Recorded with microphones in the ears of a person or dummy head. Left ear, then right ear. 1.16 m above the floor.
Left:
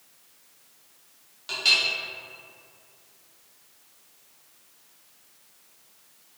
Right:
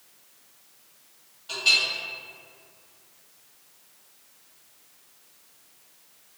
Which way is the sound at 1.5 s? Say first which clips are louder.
Even; 75° left (ahead or behind).